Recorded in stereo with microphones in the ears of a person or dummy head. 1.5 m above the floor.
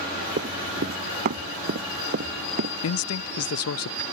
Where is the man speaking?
75° left (ahead or behind).